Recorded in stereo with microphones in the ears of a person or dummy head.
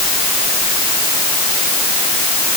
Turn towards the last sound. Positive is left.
No sound to turn to.